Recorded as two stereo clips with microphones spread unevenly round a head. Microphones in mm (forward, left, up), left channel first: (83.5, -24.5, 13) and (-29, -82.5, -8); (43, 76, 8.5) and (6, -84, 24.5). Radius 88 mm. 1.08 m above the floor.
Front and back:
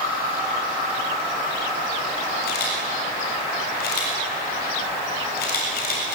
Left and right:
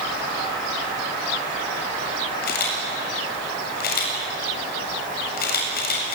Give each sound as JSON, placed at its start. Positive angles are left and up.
{"t": 2.4, "sound": "a camera shutter", "azimuth_deg": 45, "distance_m": 7.5}